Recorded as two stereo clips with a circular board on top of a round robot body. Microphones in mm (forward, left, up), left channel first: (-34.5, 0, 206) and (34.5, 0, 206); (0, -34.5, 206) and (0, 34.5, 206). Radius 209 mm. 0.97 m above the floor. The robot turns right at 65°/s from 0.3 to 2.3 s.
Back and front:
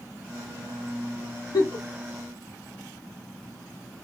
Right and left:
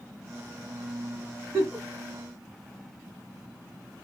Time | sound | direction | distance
1.5 | a giggle | 155° left | 0.9 m